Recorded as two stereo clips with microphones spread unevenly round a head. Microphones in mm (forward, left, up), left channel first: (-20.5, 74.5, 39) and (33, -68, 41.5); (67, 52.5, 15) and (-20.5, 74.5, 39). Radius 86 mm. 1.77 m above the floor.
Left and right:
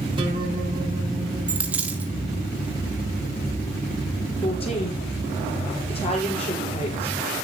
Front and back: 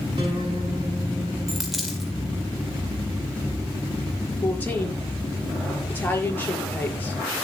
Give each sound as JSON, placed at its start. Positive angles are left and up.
{"t": 0.2, "sound": "a guitar", "azimuth_deg": -130, "distance_m": 6.0}
{"t": 1.5, "sound": "a dropped coin", "azimuth_deg": -140, "distance_m": 1.6}
{"t": 4.4, "sound": "a woman speaking", "azimuth_deg": 55, "distance_m": 6.0}